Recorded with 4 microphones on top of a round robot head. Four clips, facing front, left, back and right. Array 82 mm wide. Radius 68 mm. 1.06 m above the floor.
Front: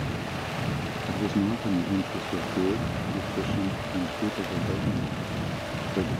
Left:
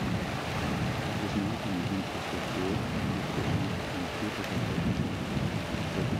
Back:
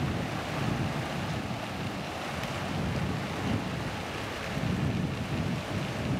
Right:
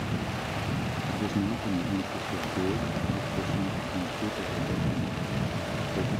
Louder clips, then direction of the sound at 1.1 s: Right 6 dB, front 8 dB; 10° right.